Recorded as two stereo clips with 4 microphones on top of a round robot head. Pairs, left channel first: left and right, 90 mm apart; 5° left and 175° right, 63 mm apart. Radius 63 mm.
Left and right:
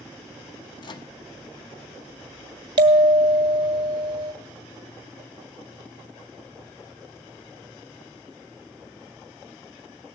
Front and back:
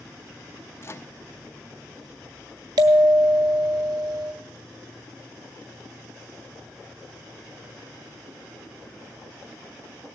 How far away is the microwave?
About 0.7 m.